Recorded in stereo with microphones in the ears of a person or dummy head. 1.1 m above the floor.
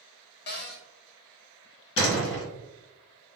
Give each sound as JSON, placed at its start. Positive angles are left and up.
{"t": 0.5, "sound": "a cupboard door", "side_deg": 50, "distance_m": 0.6}
{"t": 2.0, "sound": "a door slam", "side_deg": 60, "distance_m": 1.7}